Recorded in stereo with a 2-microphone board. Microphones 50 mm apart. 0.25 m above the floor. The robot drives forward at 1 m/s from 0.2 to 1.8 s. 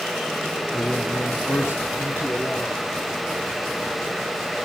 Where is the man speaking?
65° left (ahead or behind), 2 m; by 2.7 s 50° left (ahead or behind), 2.5 m.